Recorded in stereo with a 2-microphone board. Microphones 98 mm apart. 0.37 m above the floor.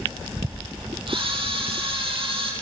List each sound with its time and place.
1.1 s a camera shutter: 60° right (ahead or behind), 6 m